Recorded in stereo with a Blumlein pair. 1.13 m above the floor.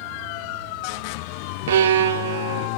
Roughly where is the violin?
Ahead right.